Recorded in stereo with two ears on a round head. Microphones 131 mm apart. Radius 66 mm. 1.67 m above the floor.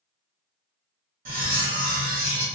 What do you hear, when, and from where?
1.2 s cutlery clinking: 55° right (ahead or behind), 1.3 m